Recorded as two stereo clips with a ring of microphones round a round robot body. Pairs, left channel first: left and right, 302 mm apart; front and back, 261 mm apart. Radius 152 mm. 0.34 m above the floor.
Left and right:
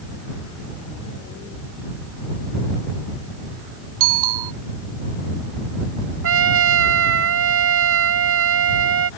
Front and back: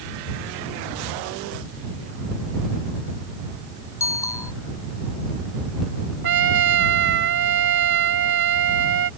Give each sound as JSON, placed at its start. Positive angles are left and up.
{"t": 4.0, "sound": "a bicycle bell", "azimuth_deg": -80}
{"t": 6.2, "sound": "a trumpet", "azimuth_deg": -135}